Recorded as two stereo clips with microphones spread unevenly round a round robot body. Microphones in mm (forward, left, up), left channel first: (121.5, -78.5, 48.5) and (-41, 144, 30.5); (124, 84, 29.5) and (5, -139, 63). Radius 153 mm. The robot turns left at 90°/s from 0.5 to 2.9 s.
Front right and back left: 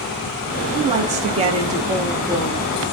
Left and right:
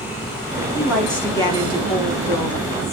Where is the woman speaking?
160° left, 0.9 m; by 3.0 s 35° right, 0.9 m.